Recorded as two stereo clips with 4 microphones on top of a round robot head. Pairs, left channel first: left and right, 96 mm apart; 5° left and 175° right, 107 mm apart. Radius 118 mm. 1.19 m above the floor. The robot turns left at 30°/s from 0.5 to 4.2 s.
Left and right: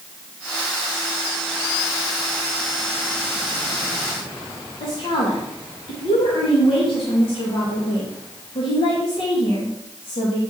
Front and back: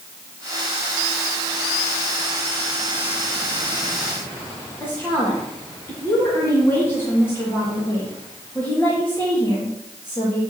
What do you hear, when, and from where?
4.8 s a woman speaking: 75° left, 2 m